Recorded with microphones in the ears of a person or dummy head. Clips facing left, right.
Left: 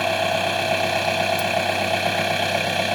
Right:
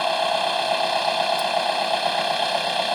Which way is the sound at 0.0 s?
30° left (ahead or behind).